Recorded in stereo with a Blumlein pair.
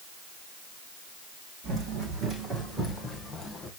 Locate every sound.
1.6 s running footsteps: 30° right, 4 m; by 3.7 s 15° left, 3 m